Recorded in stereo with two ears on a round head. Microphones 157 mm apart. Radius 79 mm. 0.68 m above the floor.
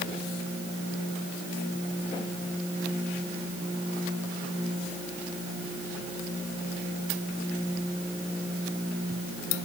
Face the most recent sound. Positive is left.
No sound to turn to.